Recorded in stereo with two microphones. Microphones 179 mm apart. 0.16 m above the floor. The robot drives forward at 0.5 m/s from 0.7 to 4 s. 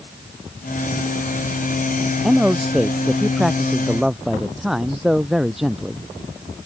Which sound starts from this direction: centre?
A man speaking, at 2.2 s.